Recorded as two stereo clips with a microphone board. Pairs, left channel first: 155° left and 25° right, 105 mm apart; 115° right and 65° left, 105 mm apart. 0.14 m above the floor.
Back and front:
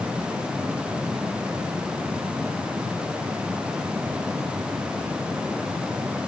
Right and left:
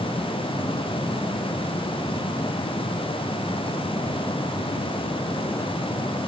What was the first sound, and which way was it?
Only background noise.